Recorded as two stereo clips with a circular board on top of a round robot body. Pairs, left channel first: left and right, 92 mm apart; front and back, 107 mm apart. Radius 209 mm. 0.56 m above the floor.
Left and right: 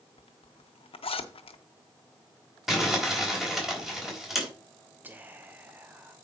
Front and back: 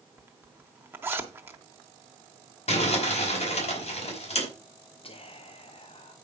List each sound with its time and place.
0.2 s a zipper: 110° left, 1.0 m
2.7 s crumpling: 5° right, 3.5 m
5.0 s whispering: 20° right, 1.0 m